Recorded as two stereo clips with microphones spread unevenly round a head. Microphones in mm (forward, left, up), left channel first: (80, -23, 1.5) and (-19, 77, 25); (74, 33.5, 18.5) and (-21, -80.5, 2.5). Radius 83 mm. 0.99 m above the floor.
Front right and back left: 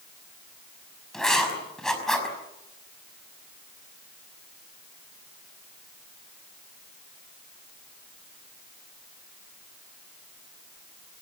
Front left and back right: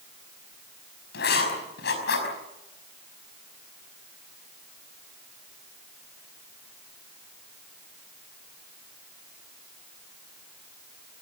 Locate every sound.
1.1 s writing: 40° left, 5.5 m